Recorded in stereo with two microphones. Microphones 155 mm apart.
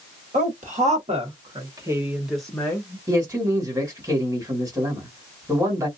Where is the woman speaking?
55° right (ahead or behind), 1.6 m; by 3.0 s 25° left (ahead or behind), 0.9 m.